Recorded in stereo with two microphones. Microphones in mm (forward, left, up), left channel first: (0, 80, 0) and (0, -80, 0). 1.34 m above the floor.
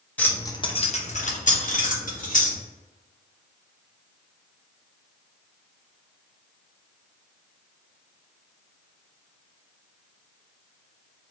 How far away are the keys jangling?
About 0.7 m.